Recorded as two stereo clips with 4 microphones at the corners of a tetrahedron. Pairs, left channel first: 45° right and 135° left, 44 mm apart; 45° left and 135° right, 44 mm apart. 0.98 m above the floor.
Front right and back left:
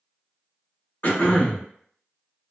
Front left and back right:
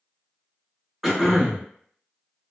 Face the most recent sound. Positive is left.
turn(degrees=-50)